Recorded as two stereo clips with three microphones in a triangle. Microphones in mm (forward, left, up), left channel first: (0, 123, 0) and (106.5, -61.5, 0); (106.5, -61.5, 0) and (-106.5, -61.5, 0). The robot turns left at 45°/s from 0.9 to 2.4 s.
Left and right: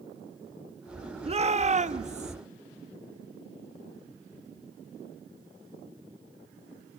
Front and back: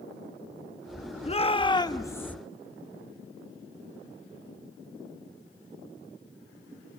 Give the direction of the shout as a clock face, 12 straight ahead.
1 o'clock.